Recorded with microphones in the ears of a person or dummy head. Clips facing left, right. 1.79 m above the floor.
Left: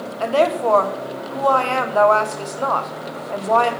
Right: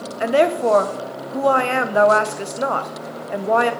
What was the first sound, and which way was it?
A woman speaking, 25° right (ahead or behind).